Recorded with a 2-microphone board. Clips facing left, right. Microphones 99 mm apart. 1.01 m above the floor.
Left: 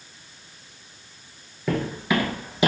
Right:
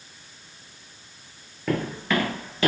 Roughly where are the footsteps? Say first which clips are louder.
Left 1 dB; centre.